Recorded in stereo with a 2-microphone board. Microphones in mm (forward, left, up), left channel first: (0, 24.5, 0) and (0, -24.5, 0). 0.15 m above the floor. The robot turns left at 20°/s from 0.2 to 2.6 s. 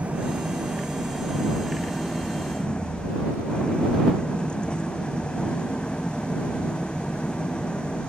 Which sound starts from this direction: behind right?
An engine running, at 0.0 s.